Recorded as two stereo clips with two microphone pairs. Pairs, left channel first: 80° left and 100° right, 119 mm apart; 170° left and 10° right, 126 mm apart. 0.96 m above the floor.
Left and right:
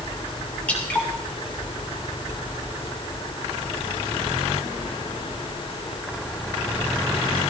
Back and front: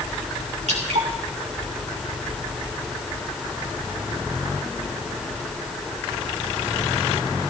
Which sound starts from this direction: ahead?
Dripping, at 0.7 s.